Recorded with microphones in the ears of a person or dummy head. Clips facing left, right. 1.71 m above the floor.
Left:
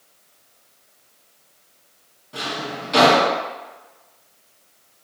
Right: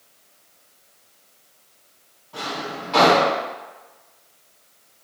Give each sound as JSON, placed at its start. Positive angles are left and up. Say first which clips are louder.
{"t": 2.3, "sound": "a drawer", "louder": "left 1 dB", "side_deg": 30, "distance_m": 1.9}